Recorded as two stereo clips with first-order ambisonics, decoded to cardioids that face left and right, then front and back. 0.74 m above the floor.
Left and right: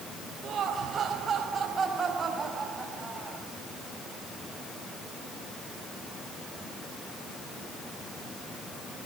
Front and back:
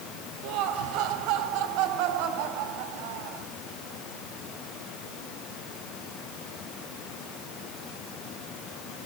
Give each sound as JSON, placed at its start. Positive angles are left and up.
{"t": 0.4, "sound": "laughter", "azimuth_deg": -150, "distance_m": 4.0}